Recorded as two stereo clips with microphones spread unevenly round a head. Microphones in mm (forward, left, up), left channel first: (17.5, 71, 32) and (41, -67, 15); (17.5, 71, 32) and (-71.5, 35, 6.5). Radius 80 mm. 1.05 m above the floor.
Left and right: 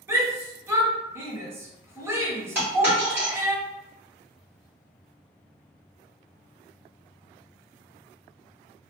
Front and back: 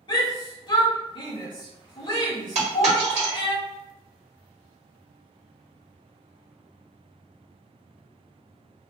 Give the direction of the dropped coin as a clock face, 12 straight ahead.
5 o'clock.